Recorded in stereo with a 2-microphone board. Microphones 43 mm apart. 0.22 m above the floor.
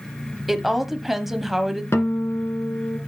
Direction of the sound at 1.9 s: 65° left (ahead or behind).